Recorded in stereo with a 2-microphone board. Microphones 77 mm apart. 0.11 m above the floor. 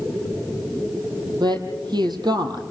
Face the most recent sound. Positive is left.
turn(degrees=-65)  # may be behind; listen again after turning